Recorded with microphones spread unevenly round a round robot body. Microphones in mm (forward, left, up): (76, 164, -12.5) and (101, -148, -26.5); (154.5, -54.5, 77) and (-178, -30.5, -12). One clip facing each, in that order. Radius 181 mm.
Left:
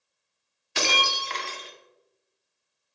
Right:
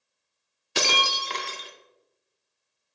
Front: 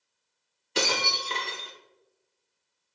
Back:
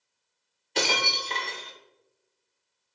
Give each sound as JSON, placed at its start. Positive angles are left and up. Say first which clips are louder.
{"t": 0.8, "sound": "breaking glass", "louder": "right 1 dB, even", "azimuth_deg": -55, "distance_m": 0.5}